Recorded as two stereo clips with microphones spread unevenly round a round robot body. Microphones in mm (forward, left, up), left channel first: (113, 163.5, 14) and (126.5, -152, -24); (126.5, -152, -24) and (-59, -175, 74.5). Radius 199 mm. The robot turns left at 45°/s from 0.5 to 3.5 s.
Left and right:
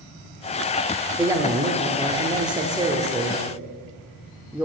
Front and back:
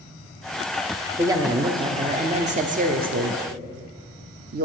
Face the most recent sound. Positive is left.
turn(degrees=-145)